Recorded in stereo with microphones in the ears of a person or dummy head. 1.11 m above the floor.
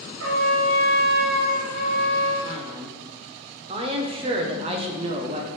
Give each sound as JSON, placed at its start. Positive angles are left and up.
{"t": 0.2, "sound": "a trumpet", "side_deg": -80, "distance_m": 1.6}
{"t": 2.4, "sound": "a man speaking", "side_deg": -30, "distance_m": 0.8}